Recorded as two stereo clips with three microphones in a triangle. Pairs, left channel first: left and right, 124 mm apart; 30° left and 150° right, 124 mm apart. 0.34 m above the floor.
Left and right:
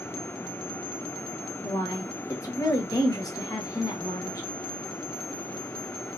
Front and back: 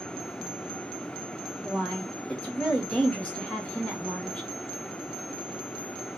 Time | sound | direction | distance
1.6 | a woman speaking | 105° left | 1.1 m